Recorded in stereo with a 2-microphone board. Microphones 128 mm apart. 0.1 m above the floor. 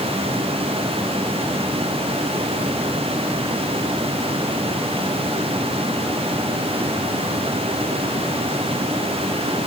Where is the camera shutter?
No camera shutter in this recording.